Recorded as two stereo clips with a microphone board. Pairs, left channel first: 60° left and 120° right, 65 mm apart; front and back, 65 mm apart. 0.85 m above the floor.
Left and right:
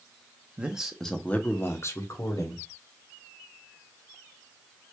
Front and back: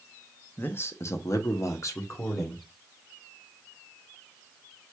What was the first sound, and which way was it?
A man speaking, 50° right.